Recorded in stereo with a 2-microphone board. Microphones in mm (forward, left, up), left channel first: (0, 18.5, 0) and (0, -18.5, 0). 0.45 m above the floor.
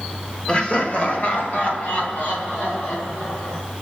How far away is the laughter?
About 0.8 m.